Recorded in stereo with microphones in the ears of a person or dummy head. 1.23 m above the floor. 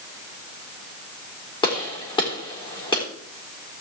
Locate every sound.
1.6 s a gunshot: 20° left (ahead or behind), 3.5 m